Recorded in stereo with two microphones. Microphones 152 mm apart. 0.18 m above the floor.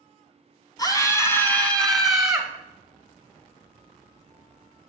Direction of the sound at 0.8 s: 25° left (ahead or behind).